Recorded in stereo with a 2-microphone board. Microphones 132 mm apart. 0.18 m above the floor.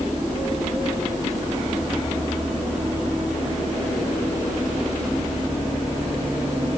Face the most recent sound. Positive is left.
No sound to turn to.